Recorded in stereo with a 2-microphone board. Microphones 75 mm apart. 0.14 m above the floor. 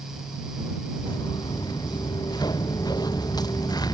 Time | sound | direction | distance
1.1 | footsteps | 70° left (ahead or behind) | ?